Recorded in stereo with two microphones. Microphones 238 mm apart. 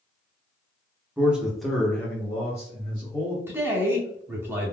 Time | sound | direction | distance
1.2 | a man speaking | 5° right (ahead or behind) | 0.9 m
3.5 | a man speaking | 10° right (ahead or behind) | 0.7 m